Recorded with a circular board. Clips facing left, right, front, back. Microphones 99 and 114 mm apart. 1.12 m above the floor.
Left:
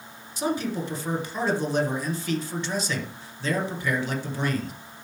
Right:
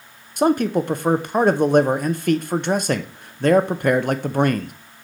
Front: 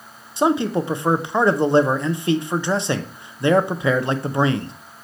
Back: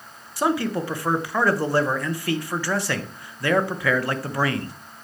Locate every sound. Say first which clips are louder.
0.4 s a man speaking: right 9 dB, front 4 dB; 65° right, 0.8 m